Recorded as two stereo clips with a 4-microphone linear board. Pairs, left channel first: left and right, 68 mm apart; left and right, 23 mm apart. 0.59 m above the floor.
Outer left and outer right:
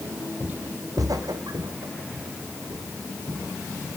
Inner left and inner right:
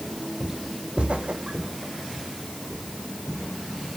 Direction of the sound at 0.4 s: 15° right (ahead or behind).